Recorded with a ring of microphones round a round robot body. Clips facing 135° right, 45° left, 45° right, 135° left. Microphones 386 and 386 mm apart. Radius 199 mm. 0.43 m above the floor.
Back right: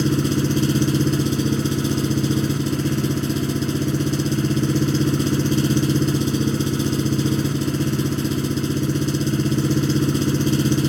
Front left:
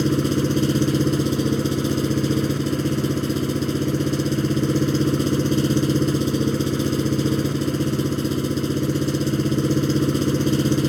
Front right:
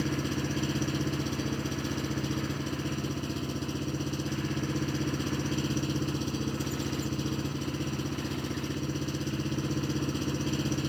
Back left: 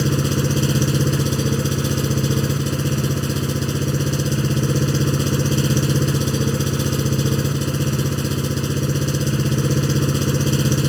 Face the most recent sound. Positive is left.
turn(degrees=150)